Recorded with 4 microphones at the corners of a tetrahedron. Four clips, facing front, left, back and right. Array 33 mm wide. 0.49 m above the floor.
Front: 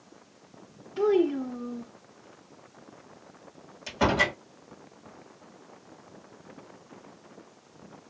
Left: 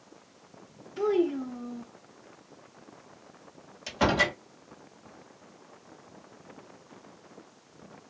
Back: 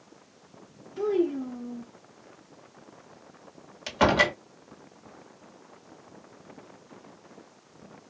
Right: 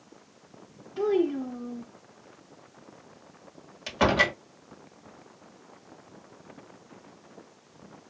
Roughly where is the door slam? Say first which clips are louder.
Right 2 dB, back 3 dB; behind right.